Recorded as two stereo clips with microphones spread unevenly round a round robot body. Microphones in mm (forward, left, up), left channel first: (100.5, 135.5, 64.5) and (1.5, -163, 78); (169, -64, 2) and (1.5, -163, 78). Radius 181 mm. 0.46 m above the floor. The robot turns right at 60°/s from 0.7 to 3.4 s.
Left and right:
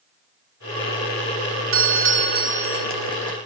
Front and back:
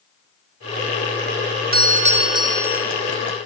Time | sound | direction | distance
1.7 | a doorbell | 100° right | 2 m